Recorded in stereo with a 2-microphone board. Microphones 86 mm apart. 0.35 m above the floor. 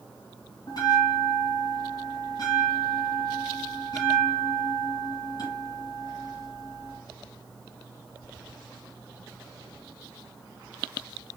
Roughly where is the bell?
Left.